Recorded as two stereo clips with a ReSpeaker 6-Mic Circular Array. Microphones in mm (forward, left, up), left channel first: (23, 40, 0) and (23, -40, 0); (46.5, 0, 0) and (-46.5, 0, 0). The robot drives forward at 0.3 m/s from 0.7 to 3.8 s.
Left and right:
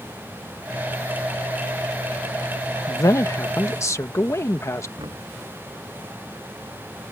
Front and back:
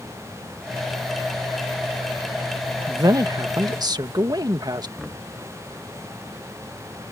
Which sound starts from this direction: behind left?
A man speaking, at 2.9 s.